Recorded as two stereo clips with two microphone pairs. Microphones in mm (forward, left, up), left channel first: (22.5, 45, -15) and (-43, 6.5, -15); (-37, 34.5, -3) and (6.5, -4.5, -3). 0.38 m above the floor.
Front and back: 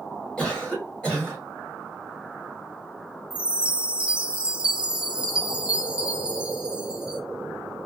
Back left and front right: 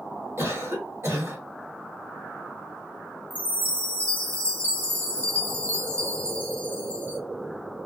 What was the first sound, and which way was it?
A cough, 45° right.